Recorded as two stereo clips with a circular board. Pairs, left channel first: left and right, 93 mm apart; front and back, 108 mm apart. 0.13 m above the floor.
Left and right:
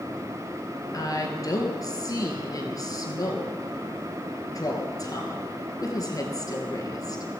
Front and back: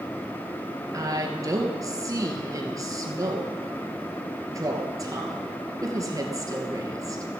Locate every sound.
0.9 s a woman speaking: 130° left, 2.5 m